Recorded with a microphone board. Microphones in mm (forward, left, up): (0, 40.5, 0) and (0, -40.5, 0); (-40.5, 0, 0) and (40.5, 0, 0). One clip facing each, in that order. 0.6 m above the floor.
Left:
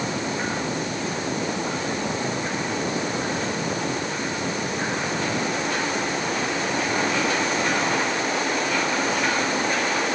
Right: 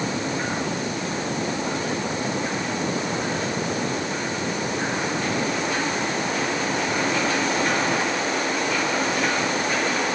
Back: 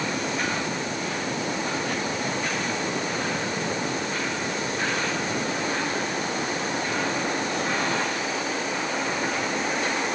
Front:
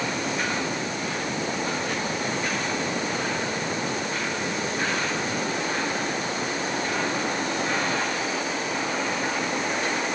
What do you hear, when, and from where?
Only background noise.